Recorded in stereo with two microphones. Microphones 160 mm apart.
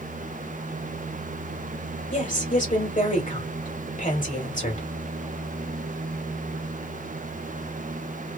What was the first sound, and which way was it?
A woman speaking, 55° left (ahead or behind).